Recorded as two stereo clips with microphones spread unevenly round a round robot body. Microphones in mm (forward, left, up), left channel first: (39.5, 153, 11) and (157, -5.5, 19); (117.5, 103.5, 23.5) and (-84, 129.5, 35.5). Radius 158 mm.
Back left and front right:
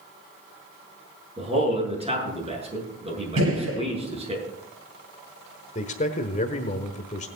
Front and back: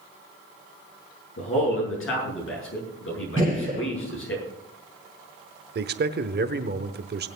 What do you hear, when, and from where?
1.4 s a man speaking: 5° left, 8 m
3.4 s a gunshot: 85° right, 5 m
5.8 s a man speaking: 165° left, 1.0 m